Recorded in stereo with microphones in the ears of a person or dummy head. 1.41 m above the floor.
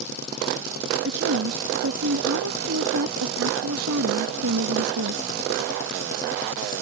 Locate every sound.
1.1 s a woman speaking: 80° right